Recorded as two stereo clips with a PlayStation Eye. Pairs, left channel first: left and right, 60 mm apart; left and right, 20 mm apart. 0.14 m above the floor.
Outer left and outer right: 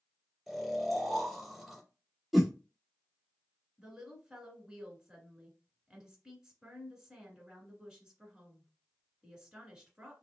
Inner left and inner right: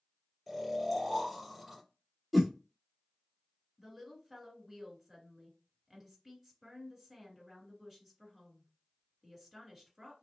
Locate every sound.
0.5 s snoring: centre (ahead or behind), 2.0 m
2.3 s a whoosh: centre (ahead or behind), 0.7 m
3.8 s a woman speaking: 15° right (ahead or behind), 1.4 m